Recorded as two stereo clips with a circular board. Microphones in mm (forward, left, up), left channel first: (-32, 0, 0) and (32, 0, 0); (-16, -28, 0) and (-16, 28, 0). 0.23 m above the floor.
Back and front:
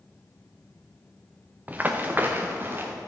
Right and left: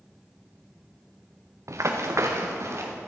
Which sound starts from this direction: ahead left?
Running footsteps, at 1.7 s.